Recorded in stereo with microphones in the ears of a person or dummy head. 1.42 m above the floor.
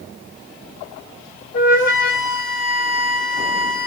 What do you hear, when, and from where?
1.5 s a flute: 65° left (ahead or behind), 4 m